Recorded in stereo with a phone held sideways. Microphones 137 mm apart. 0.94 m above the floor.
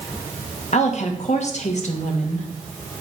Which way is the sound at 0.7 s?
60° left (ahead or behind).